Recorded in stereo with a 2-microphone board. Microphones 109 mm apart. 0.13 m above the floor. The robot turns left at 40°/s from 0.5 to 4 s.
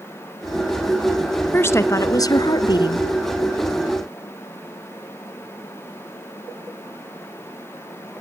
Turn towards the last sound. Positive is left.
turn(degrees=50)